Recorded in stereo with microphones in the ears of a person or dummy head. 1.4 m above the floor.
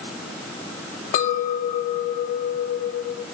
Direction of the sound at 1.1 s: 45° left (ahead or behind).